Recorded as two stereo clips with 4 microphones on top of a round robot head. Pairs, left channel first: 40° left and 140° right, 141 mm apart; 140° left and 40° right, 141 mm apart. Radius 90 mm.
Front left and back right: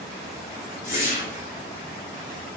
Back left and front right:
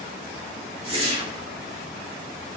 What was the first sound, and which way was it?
A whoosh, 10° left.